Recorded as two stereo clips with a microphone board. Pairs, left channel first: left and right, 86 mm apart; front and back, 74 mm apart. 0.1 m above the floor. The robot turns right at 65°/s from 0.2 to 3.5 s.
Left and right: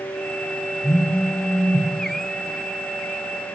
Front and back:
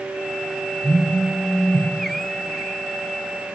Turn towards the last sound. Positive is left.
turn(degrees=-135)